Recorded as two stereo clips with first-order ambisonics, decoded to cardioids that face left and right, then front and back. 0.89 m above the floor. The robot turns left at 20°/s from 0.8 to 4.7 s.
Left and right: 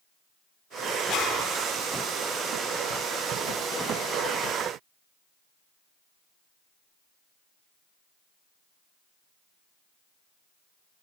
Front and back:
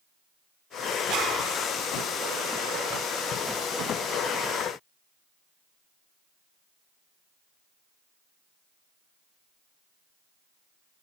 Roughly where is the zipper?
Behind left.